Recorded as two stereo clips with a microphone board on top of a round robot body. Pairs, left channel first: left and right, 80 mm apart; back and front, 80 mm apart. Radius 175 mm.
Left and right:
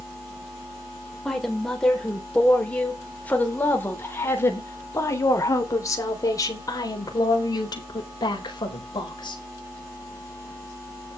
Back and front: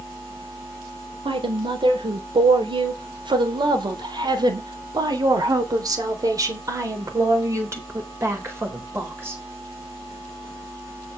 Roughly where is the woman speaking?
Ahead.